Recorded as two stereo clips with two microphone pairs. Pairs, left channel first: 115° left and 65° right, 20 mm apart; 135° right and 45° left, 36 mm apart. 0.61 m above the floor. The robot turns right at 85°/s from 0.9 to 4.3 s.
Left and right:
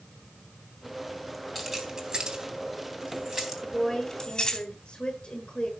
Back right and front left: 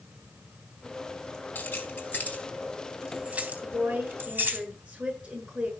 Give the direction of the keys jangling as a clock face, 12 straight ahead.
5 o'clock.